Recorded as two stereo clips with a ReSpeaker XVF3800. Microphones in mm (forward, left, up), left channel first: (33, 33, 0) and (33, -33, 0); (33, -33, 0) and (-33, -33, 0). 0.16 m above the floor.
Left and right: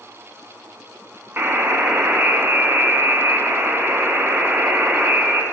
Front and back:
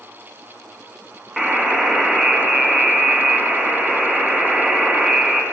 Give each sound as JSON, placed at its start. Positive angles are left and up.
{"t": 1.4, "sound": "a buzzer", "azimuth_deg": -90, "distance_m": 0.9}